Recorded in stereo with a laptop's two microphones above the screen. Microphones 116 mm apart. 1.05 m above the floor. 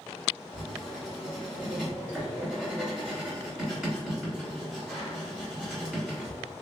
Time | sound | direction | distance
0.5 | writing | 5° right (ahead or behind) | 1.7 m